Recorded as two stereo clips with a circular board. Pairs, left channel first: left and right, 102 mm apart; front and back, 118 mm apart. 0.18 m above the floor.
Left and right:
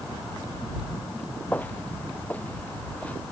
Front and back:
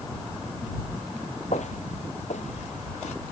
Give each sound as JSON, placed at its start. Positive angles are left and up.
{"t": 1.5, "sound": "footsteps", "azimuth_deg": 15}